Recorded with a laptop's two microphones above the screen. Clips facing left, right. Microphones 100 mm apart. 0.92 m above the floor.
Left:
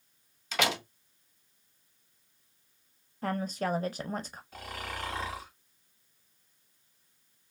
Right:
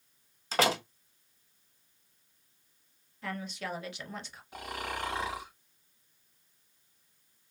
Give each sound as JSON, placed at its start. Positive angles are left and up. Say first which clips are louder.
{"t": 0.5, "sound": "a door slam", "louder": "right 3 dB", "side_deg": -35, "distance_m": 0.6}
{"t": 3.2, "sound": "a woman speaking", "louder": "left 7 dB", "side_deg": 40, "distance_m": 0.6}
{"t": 4.5, "sound": "snoring", "louder": "right 3 dB", "side_deg": -20, "distance_m": 1.7}